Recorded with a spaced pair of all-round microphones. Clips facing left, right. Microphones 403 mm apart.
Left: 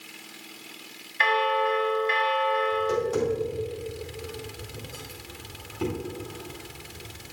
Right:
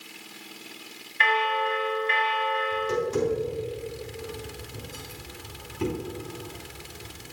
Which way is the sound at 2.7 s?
5° right (ahead or behind).